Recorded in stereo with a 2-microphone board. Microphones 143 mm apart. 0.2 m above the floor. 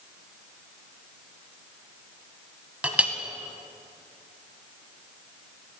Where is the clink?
10° right (ahead or behind), 0.9 m.